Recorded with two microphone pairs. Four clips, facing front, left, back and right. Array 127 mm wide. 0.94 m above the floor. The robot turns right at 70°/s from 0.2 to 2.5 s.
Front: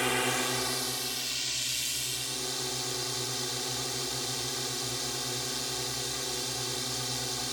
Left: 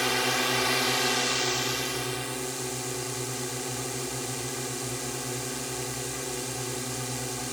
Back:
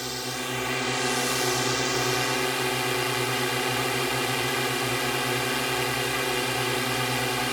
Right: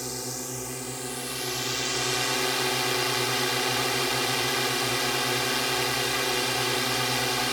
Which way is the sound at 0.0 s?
70° left.